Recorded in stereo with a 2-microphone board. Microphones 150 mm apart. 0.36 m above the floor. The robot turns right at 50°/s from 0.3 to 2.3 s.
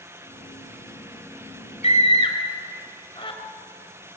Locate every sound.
1.8 s a scream: 45° left (ahead or behind), 2.0 m; by 3.4 s 35° left (ahead or behind), 2.0 m